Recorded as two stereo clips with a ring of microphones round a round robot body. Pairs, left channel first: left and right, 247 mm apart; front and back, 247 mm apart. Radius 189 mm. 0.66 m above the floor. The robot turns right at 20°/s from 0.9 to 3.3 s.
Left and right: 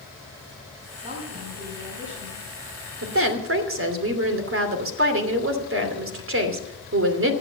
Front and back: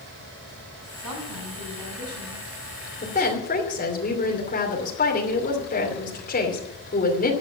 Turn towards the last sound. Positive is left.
turn(degrees=-60)